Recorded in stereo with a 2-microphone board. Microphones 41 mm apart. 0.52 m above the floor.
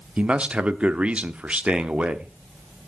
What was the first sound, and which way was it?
A man speaking, 30° right (ahead or behind).